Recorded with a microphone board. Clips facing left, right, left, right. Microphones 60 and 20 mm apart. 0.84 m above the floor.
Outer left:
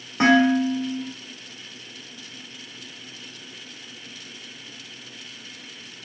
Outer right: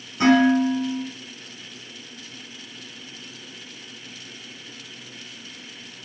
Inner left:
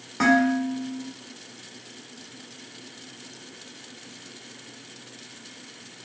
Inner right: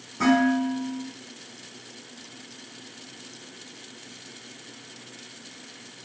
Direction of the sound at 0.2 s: 80° left.